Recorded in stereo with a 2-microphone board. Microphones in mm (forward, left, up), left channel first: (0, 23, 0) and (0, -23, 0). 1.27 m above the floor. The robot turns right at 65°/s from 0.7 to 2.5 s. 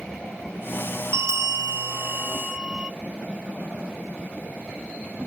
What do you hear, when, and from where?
1.1 s a bell: 110° right, 0.6 m; by 2.9 s 20° right, 0.6 m